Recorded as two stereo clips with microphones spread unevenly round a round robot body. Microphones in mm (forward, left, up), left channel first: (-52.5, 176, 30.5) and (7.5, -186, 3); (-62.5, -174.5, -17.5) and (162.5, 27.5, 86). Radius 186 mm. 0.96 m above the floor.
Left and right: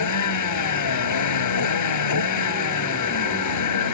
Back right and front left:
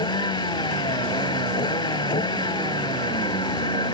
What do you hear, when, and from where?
0.0 s a vehicle: 140° left